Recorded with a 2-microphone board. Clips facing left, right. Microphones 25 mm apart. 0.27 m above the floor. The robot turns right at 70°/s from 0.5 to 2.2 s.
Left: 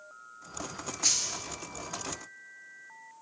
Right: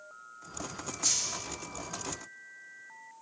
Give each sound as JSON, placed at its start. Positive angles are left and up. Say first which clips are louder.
{"t": 1.0, "sound": "a dropped coin", "louder": "left 2 dB", "side_deg": 30, "distance_m": 1.6}